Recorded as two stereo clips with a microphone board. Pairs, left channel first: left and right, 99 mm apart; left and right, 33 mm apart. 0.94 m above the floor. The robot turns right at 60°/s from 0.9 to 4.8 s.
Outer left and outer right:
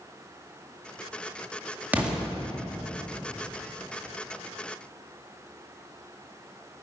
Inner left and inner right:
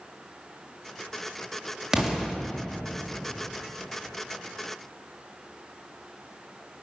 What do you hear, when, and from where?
1.9 s an explosion: 15° right (ahead or behind), 2 m; by 2.2 s centre (ahead or behind), 2 m